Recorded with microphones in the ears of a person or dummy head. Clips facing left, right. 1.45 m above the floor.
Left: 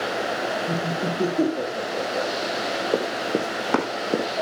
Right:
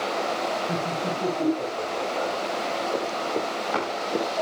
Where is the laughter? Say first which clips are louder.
Left 2 dB; 65° left (ahead or behind), 5.5 m; by 2.3 s 75° left (ahead or behind), 6.5 m.